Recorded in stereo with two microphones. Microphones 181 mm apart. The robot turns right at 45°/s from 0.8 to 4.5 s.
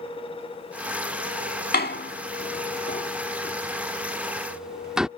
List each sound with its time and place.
1.7 s a door slam: 60° left (ahead or behind); by 5.1 s 5° right (ahead or behind)